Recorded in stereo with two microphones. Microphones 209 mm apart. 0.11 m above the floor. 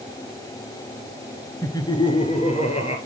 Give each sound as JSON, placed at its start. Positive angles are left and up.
{"t": 1.6, "sound": "laughter", "side_deg": 15, "distance_m": 1.4}